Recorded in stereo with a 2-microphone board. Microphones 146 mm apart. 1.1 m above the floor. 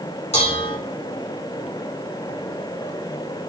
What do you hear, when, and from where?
0.3 s dishes clattering: 45° left (ahead or behind), 2.5 m